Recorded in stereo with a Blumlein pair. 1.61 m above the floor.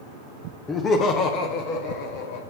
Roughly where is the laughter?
Ahead.